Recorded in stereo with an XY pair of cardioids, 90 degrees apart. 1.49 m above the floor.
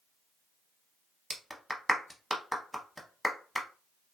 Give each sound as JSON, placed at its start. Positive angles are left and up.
{"t": 1.3, "sound": "a clap", "azimuth_deg": 5, "distance_m": 0.9}